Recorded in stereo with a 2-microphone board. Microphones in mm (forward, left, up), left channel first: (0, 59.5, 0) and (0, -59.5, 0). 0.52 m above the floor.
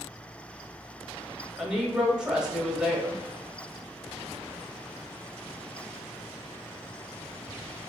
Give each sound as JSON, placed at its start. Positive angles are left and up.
{"t": 1.6, "sound": "a woman speaking", "side_deg": -5, "distance_m": 1.2}